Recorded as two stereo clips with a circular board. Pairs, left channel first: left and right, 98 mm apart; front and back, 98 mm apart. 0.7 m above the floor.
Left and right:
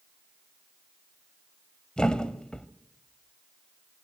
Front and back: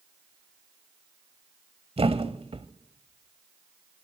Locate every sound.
2.0 s a thud: 170° left, 1.2 m